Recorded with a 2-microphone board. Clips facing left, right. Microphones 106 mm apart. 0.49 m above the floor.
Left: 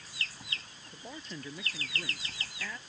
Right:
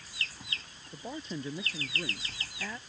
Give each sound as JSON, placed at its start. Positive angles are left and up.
{"t": 0.9, "sound": "a man speaking", "side_deg": -20}